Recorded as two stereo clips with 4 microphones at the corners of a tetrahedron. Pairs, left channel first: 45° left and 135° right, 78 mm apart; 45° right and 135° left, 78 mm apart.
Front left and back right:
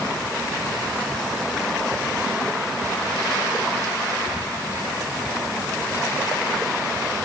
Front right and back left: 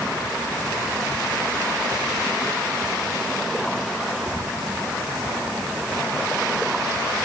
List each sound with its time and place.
Only background noise.